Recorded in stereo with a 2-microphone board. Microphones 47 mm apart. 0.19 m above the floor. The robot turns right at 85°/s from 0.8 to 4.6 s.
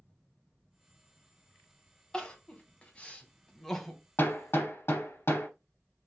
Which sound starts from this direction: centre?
Crying, at 2.1 s.